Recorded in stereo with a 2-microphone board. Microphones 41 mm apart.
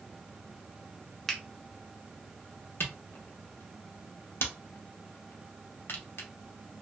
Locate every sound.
1.3 s a finger snap: 10° left (ahead or behind), 0.7 m
2.8 s a camera shutter: 75° left (ahead or behind), 0.7 m